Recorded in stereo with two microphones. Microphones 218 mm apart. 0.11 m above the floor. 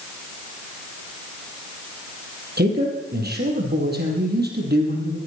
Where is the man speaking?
45° right (ahead or behind), 4 m.